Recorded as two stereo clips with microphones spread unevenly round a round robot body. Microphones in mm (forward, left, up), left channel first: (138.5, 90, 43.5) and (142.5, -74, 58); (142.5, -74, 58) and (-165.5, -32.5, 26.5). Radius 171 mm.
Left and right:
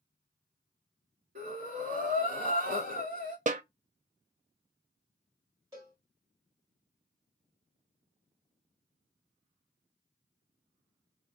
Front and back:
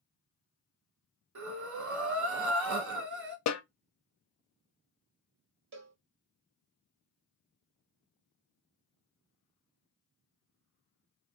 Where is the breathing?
145° right, 1.1 m.